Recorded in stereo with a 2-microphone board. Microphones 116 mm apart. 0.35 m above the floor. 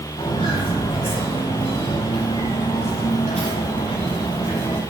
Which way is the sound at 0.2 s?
55° left (ahead or behind).